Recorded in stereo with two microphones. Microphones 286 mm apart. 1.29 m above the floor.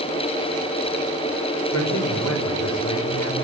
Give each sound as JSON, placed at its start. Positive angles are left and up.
{"t": 1.7, "sound": "a man speaking", "side_deg": 75, "distance_m": 5.0}